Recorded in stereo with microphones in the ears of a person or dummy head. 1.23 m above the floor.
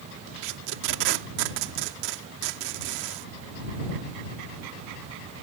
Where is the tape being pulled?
65° right (ahead or behind).